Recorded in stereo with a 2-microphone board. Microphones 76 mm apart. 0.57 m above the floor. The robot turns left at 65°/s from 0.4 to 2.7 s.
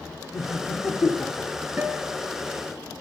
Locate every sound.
0.3 s laughter: 50° left (ahead or behind), 1.6 m; by 1.5 s 20° left (ahead or behind), 1.6 m
1.8 s a guitar: 155° right, 1.3 m; by 2.3 s 170° left, 1.3 m